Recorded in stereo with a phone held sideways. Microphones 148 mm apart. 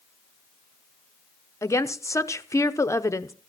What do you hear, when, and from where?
1.6 s a woman speaking: 20° left (ahead or behind), 0.8 m